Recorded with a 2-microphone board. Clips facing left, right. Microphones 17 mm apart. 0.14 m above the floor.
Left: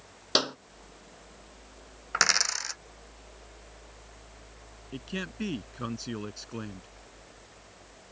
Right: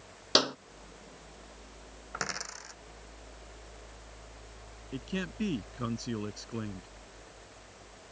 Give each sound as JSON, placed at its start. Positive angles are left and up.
{"t": 0.3, "sound": "a clap", "side_deg": -5}
{"t": 2.1, "sound": "a dropped coin", "side_deg": 60}
{"t": 4.9, "sound": "a man speaking", "side_deg": 10}